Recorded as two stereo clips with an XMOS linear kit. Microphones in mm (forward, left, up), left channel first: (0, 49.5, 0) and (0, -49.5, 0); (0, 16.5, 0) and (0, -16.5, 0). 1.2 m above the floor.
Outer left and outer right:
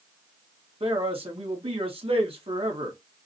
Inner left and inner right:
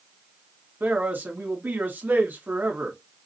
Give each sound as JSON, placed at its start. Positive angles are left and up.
{"t": 0.8, "sound": "a man speaking", "side_deg": -75, "distance_m": 2.0}